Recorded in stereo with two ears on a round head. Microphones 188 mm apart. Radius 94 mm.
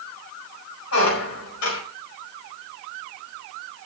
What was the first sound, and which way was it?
A squeak, 80° left.